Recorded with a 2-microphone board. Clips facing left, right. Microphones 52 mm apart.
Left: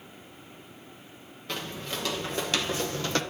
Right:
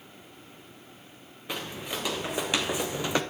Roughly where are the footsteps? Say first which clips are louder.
Even; centre.